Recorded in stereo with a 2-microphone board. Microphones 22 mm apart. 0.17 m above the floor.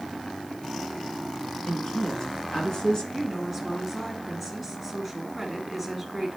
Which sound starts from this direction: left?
A woman speaking, at 1.7 s.